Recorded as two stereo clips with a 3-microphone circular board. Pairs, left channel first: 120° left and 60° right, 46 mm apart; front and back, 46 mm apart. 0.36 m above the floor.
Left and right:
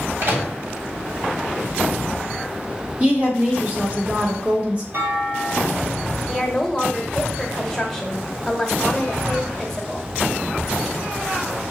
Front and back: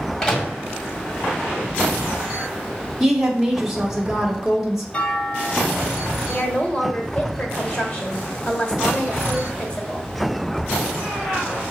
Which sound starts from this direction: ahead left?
A woman speaking, at 6.3 s.